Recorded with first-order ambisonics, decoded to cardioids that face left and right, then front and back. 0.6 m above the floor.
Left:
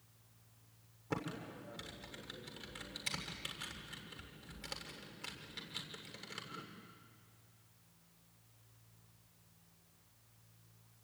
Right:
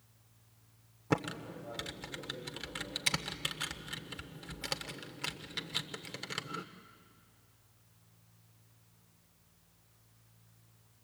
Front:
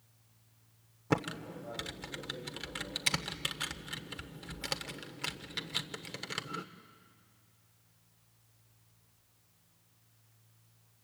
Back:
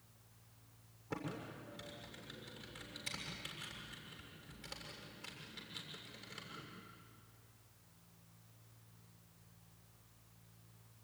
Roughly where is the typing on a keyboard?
Ahead right.